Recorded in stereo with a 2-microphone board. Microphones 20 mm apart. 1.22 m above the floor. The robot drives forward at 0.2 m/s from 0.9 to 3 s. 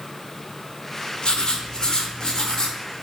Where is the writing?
45° left (ahead or behind), 0.5 m; by 2.8 s 30° left (ahead or behind), 0.7 m.